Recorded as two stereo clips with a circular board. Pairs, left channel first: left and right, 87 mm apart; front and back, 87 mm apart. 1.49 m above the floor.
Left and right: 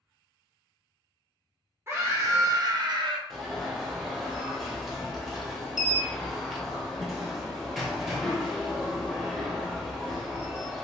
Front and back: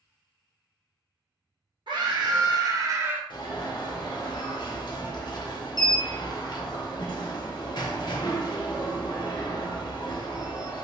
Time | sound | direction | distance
1.9 | a scream | 155° right | 1.2 m
3.3 | an alarm | 5° right | 0.8 m